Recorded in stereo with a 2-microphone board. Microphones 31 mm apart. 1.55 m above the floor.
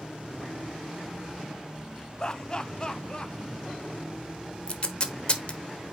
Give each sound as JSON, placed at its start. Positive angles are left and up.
{"t": 2.2, "sound": "laughter", "side_deg": 25, "distance_m": 0.7}
{"t": 4.7, "sound": "tape being pulled", "side_deg": 30, "distance_m": 1.0}